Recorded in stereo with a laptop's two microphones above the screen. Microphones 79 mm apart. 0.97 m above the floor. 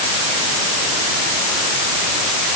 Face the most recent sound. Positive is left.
No sound to turn to.